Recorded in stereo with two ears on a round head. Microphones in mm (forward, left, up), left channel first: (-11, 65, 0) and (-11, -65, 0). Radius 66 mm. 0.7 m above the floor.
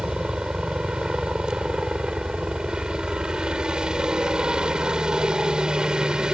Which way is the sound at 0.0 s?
5° right (ahead or behind).